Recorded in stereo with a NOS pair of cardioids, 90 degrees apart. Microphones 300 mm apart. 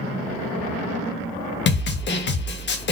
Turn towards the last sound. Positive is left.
turn(degrees=35)